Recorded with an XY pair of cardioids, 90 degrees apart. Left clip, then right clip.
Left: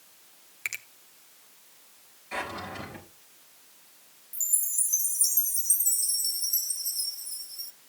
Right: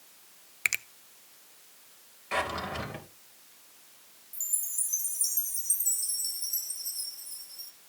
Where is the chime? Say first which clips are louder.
Left 5 dB; 30° left, 1.0 m.